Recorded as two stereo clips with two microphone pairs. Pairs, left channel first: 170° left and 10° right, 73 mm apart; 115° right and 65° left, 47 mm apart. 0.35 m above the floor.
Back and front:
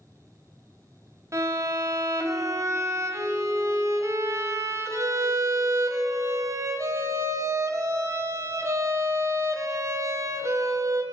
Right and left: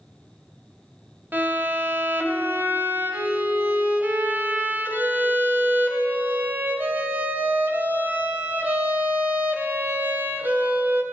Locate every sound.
1.3 s a violin: 25° left, 1.3 m